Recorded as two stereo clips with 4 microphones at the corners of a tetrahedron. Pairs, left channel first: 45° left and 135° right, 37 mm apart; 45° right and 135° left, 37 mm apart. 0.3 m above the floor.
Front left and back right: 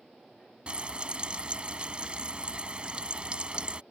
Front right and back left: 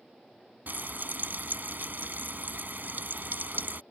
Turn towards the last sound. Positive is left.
turn(degrees=160)